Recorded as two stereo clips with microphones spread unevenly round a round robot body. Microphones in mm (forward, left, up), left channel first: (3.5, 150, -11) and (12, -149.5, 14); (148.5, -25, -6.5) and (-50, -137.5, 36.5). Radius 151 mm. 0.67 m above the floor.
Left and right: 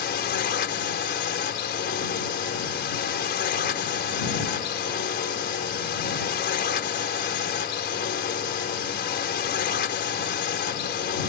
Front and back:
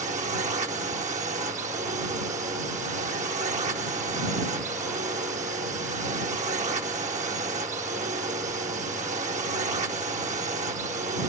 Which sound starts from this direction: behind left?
A drone, at 0.0 s.